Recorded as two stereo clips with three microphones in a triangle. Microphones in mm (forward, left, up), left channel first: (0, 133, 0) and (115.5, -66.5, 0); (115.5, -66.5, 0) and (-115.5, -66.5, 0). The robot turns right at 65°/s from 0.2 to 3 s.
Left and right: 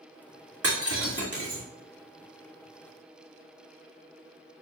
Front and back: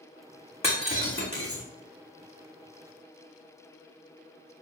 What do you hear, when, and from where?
0.6 s breaking glass: 65° right, 3 m; by 1.6 s straight ahead, 3 m